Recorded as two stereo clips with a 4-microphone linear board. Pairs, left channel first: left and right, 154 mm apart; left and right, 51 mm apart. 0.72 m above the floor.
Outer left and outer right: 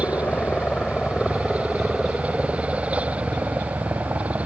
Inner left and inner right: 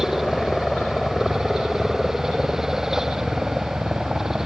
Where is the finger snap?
I don't hear a finger snap.